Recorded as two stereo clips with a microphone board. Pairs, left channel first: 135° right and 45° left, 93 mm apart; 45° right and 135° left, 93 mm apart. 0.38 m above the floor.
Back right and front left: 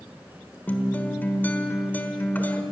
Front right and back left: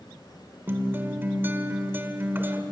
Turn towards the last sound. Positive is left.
turn(degrees=175)